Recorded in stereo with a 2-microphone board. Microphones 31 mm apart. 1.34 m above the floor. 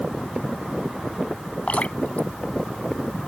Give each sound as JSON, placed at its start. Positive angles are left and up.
{"t": 1.7, "sound": "dripping", "side_deg": 45}